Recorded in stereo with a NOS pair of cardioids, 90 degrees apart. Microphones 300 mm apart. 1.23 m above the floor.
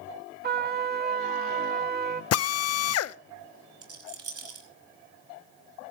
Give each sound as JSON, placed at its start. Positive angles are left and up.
{"t": 0.4, "sound": "a trumpet", "azimuth_deg": -35, "distance_m": 1.8}
{"t": 2.3, "sound": "a drill", "azimuth_deg": 55, "distance_m": 0.7}
{"t": 3.8, "sound": "a rattle", "azimuth_deg": -55, "distance_m": 6.0}